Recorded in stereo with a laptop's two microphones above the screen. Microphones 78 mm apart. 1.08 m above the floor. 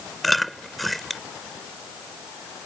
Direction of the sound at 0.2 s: Centre (ahead or behind).